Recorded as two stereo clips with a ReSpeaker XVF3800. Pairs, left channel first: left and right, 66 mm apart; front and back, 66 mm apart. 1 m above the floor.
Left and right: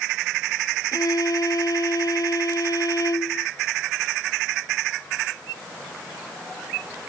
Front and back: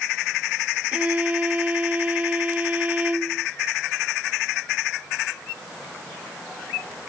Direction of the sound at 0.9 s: 110° left.